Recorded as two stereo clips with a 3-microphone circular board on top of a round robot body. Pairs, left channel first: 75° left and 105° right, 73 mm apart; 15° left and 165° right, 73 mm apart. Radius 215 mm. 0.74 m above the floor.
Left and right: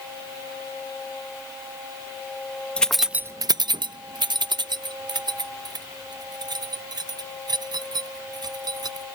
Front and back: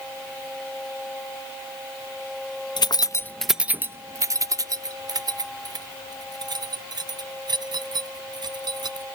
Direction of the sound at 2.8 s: Straight ahead.